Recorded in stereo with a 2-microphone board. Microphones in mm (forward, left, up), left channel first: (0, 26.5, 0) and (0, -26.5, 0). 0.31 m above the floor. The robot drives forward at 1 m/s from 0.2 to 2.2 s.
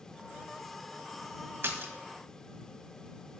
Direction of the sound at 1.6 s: 55° right (ahead or behind).